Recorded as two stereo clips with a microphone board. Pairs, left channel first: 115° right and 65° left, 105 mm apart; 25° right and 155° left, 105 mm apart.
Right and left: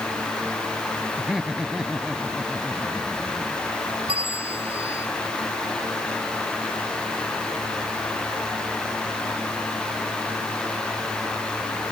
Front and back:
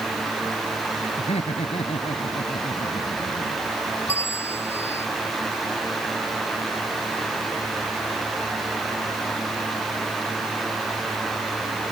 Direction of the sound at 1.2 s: 20° right.